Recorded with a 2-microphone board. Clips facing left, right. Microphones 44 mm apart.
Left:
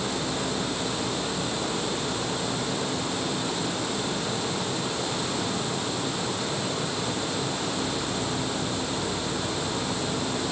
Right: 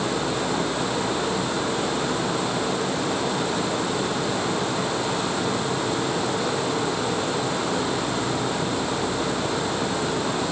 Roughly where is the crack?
No crack in this recording.